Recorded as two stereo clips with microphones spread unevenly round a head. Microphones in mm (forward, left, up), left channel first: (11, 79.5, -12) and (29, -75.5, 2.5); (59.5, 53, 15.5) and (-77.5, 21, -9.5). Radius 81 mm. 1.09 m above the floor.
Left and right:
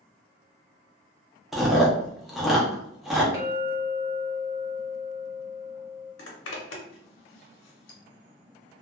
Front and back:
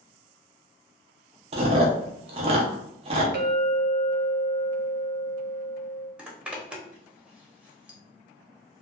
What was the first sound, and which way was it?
Chewing, 160° right.